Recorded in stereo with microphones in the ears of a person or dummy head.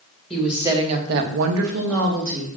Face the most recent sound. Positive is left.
turn(degrees=-60)  # may be behind; listen again after turning